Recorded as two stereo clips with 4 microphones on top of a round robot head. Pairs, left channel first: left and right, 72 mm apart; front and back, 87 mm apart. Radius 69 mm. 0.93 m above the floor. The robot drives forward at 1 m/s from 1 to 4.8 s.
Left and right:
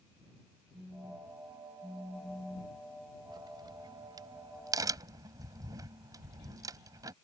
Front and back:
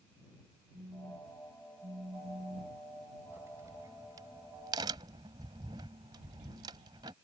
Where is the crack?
110° right; by 7.1 s 125° right.